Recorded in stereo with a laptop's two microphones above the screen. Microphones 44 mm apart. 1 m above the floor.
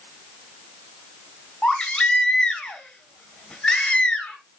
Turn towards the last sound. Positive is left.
turn(degrees=30)  # may be behind; listen again after turning